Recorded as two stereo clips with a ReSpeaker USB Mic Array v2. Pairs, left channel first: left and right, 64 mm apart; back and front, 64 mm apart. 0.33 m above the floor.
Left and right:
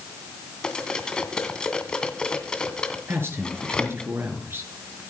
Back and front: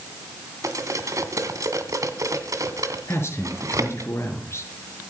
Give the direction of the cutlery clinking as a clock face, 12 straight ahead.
12 o'clock.